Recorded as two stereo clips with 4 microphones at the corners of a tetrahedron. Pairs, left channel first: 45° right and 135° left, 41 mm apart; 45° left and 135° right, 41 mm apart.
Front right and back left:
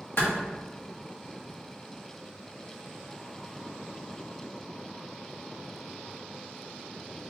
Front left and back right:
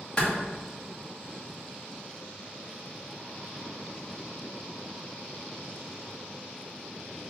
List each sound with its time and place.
0.2 s a clap: 15° right, 1.4 m